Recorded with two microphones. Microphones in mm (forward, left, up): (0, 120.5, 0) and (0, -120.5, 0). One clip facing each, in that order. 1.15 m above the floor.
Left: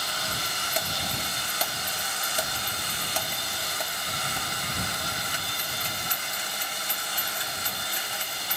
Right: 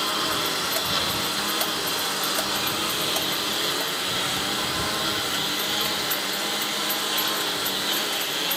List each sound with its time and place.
0.0 s a lawn mower: 75° right (ahead or behind); by 8.6 s 85° right